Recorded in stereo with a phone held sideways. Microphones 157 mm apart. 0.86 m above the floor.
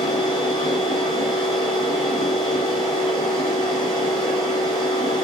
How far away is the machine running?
About 1.1 m.